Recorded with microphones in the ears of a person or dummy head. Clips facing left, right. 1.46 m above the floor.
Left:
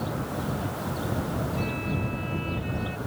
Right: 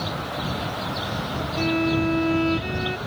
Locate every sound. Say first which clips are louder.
1.6 s a violin: right 9 dB; 80° right